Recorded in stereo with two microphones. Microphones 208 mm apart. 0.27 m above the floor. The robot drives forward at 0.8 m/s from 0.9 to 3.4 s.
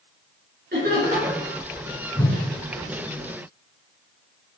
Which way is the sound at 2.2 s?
15° left (ahead or behind).